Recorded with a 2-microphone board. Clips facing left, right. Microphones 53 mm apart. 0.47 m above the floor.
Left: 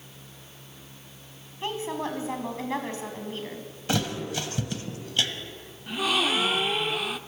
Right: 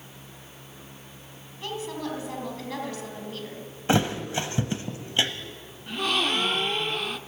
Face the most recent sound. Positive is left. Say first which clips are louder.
# left 1 dB
turn(degrees=5)  # may be behind; listen again after turning